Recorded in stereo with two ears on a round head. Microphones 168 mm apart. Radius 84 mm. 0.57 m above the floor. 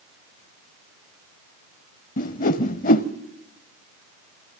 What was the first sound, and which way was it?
A whoosh, 45° left (ahead or behind).